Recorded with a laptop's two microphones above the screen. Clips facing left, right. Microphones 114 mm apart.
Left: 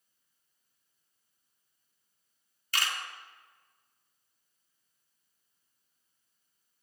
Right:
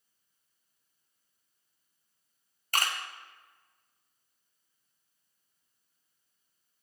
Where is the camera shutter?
45° right (ahead or behind), 0.7 m.